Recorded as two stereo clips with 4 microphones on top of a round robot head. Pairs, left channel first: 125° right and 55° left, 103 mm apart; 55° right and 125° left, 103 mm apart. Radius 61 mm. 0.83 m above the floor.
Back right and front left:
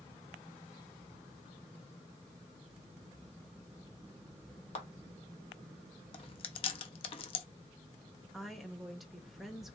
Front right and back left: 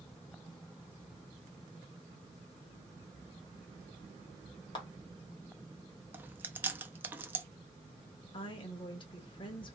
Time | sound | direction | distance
4.8 | a clap | 100° right | 1.2 m
6.1 | chewing | 160° right | 0.5 m
8.3 | a woman speaking | 35° right | 1.1 m